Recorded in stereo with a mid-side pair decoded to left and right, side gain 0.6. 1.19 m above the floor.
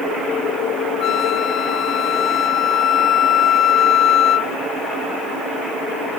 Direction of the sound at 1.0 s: 50° left.